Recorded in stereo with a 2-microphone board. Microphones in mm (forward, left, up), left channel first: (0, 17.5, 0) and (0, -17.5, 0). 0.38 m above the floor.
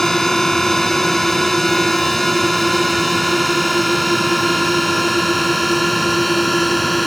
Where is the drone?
15° left (ahead or behind); by 7.1 s 5° right (ahead or behind).